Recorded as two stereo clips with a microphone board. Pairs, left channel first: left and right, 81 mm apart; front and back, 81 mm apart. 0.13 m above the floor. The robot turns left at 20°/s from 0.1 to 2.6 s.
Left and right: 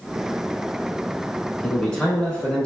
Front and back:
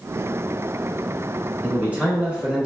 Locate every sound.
1.6 s a man speaking: 155° left, 1.1 m; by 2.7 s 135° left, 1.1 m